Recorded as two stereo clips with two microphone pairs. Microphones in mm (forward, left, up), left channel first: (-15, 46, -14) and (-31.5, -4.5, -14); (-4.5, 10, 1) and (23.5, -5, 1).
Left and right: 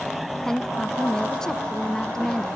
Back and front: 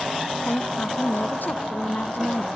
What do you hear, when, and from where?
0.5 s a woman speaking: 150° left